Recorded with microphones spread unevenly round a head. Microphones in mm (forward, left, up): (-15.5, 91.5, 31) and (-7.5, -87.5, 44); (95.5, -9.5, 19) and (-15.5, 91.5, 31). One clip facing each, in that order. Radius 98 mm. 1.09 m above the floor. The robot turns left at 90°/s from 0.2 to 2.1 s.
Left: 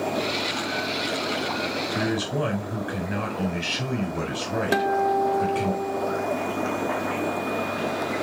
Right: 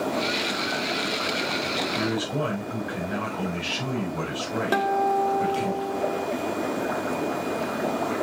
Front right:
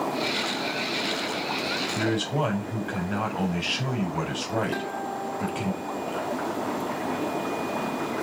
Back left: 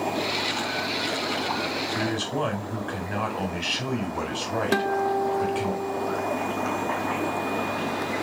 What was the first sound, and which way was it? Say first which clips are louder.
A man speaking: left 2 dB, front right 3 dB; 55° left.